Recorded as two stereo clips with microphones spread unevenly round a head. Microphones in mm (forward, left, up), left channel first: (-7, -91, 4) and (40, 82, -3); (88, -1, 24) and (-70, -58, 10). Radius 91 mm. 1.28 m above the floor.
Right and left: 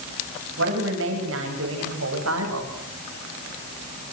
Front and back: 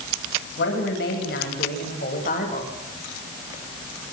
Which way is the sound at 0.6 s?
55° left.